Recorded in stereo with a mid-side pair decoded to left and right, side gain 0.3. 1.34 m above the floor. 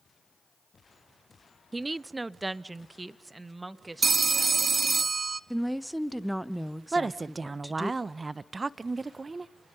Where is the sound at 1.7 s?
20° right, 0.6 m.